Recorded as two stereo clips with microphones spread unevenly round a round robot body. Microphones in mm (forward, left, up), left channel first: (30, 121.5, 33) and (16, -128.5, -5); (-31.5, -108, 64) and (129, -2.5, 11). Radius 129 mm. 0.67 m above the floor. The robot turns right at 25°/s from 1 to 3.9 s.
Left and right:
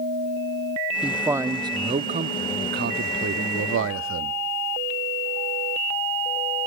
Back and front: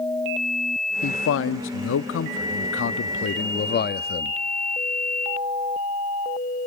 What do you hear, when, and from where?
1.0 s a man speaking: 175° right, 0.8 m; by 4.3 s 105° right, 0.8 m